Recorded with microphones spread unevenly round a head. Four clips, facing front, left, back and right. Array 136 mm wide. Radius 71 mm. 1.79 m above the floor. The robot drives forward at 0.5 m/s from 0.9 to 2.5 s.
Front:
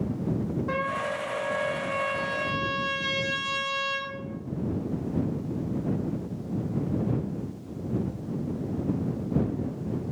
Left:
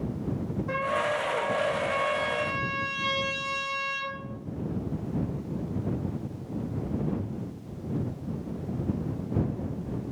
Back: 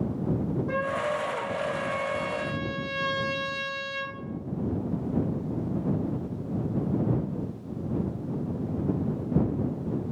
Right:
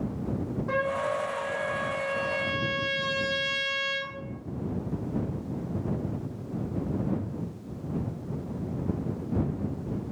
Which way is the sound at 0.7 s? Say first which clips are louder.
Even, back 2 dB; 20° right.